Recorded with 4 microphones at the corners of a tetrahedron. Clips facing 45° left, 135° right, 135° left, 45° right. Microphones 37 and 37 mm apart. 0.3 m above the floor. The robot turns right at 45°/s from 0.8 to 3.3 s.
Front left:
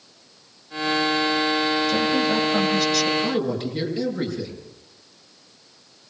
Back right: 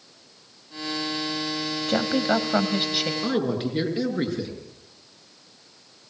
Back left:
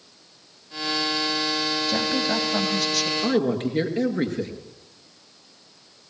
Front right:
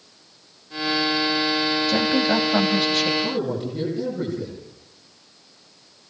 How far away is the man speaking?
About 5.5 m.